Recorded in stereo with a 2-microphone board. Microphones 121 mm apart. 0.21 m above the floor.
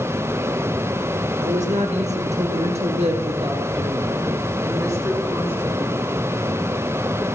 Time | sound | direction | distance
1.4 | a woman speaking | 75° right (ahead or behind) | 3.5 m